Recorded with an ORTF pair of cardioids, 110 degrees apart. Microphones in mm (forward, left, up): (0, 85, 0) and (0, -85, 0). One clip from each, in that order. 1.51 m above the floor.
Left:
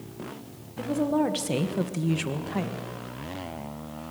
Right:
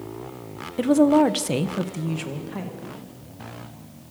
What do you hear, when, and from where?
0.8 s a woman speaking: 60° right, 1.3 m; by 2.9 s 30° left, 2 m